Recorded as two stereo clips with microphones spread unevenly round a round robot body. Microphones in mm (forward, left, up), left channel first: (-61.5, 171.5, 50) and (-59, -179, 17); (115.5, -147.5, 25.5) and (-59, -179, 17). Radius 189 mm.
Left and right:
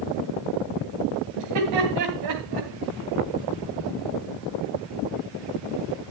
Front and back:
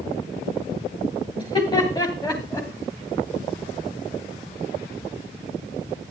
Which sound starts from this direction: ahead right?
Laughter, at 1.4 s.